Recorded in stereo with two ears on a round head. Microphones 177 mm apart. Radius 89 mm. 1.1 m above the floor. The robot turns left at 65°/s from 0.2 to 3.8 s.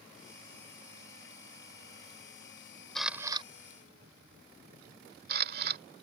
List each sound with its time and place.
3.0 s a camera shutter: centre (ahead or behind); by 5.8 s 50° right (ahead or behind)